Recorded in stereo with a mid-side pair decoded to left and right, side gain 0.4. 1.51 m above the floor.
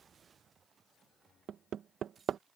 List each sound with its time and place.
1.5 s hammering: 70° right